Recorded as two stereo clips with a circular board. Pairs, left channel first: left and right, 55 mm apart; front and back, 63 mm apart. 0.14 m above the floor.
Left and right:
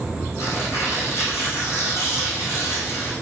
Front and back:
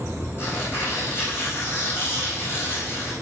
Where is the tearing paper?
55° left, 5 m.